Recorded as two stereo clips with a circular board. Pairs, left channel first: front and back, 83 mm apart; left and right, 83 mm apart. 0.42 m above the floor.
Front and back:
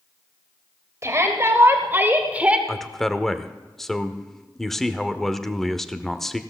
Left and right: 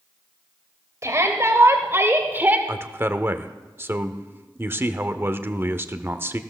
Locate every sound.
1.0 s a shout: 135° right, 2 m; by 2.6 s 125° right, 1.4 m
2.7 s a man speaking: 80° right, 0.8 m